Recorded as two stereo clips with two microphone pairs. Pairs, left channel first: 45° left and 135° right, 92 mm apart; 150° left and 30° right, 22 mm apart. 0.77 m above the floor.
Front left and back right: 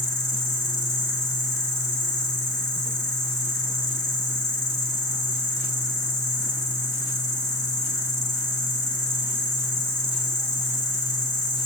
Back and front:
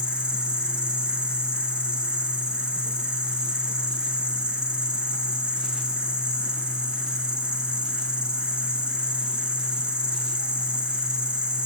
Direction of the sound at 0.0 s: 75° right.